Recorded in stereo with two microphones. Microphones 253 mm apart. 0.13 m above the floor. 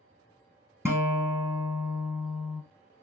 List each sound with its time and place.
0.8 s a guitar: 10° right (ahead or behind), 1.1 m